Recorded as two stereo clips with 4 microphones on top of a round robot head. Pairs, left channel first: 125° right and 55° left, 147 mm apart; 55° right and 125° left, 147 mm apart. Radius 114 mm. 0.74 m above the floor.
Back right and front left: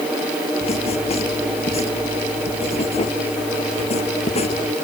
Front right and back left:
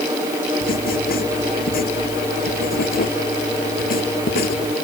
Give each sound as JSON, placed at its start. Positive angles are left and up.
{"t": 0.6, "sound": "writing", "azimuth_deg": -75}